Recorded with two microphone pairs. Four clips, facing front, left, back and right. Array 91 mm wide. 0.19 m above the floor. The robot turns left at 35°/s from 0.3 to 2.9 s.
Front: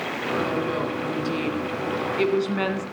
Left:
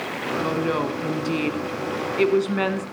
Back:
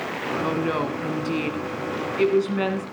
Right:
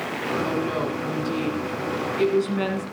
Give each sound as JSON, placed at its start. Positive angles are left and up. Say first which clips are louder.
{"t": 0.4, "sound": "a woman speaking", "louder": "left 4 dB, back 4 dB", "azimuth_deg": 140, "distance_m": 2.0}